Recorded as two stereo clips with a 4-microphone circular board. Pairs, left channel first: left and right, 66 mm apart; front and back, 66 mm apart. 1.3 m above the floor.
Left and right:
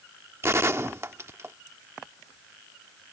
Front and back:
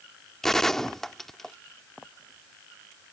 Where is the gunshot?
80° right.